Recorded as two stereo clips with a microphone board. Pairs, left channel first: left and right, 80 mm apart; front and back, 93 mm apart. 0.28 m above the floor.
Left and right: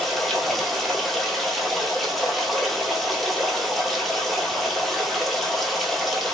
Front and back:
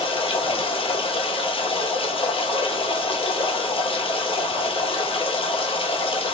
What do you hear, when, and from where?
0.0 s running water: straight ahead, 0.8 m